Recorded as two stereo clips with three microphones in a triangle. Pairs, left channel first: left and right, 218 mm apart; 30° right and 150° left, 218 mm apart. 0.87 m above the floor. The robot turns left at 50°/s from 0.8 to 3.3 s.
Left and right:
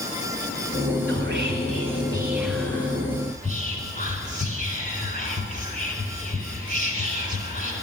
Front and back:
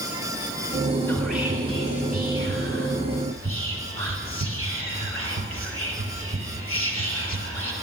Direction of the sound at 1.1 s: 110° right.